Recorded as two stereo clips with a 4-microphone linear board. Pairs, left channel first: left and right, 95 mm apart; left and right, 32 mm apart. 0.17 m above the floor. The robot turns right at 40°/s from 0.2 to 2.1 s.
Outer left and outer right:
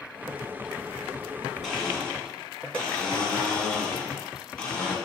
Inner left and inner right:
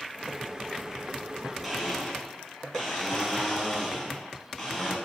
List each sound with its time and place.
1.6 s a blender: centre (ahead or behind), 1.5 m; by 5.0 s 10° left (ahead or behind), 1.5 m